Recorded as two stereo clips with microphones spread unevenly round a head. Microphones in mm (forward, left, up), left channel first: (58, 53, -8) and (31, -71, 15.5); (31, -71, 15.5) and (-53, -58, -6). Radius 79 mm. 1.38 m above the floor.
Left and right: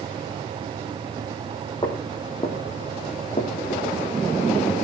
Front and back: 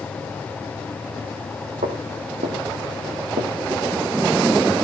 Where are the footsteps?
150° left, 3.5 m; by 3.9 s 130° left, 3 m.